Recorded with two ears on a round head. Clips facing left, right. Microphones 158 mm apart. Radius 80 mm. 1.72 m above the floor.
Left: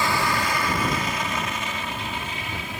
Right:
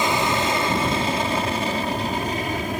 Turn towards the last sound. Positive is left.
turn(degrees=-40)  # may be behind; listen again after turning